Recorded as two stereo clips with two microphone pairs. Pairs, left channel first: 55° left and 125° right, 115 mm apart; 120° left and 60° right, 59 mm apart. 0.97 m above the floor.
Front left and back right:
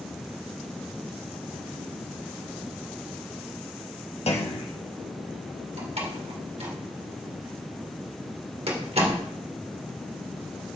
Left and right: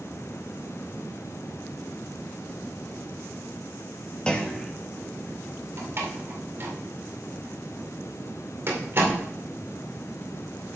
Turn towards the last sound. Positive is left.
turn(degrees=-100)